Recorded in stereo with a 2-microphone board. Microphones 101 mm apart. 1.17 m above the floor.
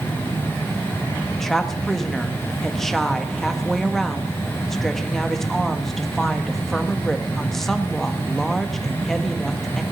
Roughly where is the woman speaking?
Centre.